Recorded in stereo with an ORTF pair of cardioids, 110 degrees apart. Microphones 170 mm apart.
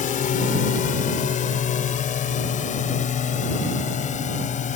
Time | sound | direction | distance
0.0 | a drone | 50° left | ?